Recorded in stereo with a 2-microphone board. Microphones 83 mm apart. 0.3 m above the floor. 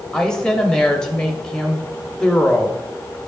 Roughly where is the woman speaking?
Centre.